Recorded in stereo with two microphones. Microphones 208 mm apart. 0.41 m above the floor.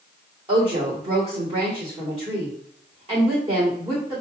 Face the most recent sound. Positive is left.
turn(degrees=-35)  # may be behind; listen again after turning